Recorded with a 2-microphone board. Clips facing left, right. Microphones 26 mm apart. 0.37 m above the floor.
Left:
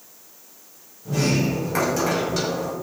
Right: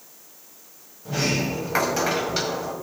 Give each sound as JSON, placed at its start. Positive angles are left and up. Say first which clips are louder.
{"t": 1.1, "sound": "a sliding door", "louder": "left 2 dB", "side_deg": -30, "distance_m": 3.0}